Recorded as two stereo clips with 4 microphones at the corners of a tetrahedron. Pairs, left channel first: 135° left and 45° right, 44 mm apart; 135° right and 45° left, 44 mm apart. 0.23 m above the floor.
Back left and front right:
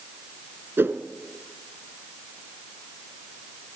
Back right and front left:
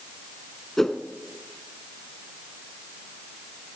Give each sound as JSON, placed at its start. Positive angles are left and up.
{"t": 0.8, "sound": "a whoosh", "azimuth_deg": -55, "distance_m": 0.9}